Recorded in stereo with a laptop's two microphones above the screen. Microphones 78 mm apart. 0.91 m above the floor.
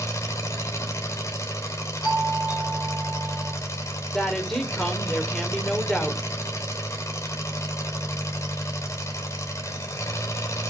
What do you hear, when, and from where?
0.0 s an engine running: 40° left (ahead or behind), 3 m
2.0 s a doorbell: 70° left (ahead or behind), 4.5 m
4.1 s a woman speaking: 5° left (ahead or behind), 3 m